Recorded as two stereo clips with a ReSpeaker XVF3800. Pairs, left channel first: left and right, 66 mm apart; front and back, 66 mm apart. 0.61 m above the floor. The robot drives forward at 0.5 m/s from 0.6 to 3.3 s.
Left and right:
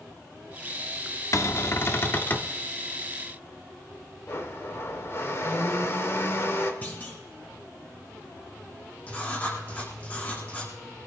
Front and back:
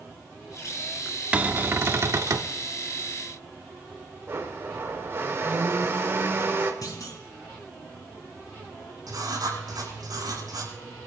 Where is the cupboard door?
115° left, 0.6 m; by 2.5 s 150° left, 1.0 m.